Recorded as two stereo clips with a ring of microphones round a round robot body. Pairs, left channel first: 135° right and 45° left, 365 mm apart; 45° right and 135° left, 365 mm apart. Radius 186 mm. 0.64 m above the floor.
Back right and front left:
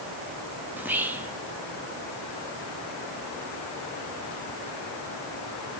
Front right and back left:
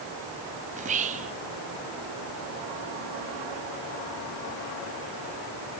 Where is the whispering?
120° left, 0.6 m.